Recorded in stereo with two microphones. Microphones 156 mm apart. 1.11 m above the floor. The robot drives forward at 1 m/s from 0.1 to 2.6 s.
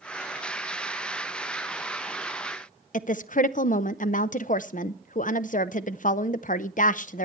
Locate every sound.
2.9 s a woman speaking: 60° left (ahead or behind), 0.6 m